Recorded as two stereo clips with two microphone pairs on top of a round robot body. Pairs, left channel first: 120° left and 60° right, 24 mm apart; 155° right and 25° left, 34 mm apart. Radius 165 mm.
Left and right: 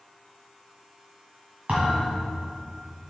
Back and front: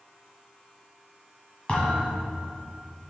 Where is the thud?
100° right, 1.4 m.